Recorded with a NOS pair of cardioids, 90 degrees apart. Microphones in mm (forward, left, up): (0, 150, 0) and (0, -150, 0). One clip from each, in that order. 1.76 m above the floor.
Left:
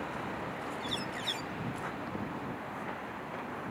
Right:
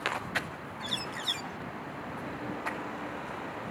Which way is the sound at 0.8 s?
30° right.